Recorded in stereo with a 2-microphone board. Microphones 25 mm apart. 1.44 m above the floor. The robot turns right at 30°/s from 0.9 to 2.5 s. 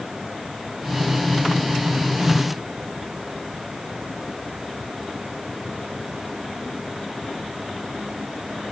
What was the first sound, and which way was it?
Only background noise.